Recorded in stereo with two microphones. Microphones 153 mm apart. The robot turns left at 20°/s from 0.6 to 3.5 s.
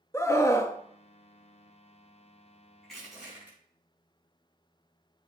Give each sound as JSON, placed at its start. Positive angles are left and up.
{"t": 0.1, "sound": "a scream", "side_deg": 20, "distance_m": 0.5}
{"t": 2.8, "sound": "crushing", "side_deg": 5, "distance_m": 4.5}